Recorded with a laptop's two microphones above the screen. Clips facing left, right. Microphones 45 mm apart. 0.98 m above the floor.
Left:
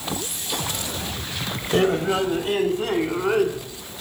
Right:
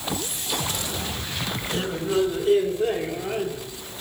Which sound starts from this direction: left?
A man speaking, at 1.7 s.